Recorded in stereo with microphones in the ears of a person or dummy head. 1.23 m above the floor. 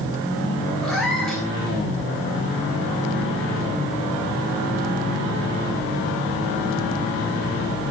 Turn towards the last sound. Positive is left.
turn(degrees=5)  # may be behind; listen again after turning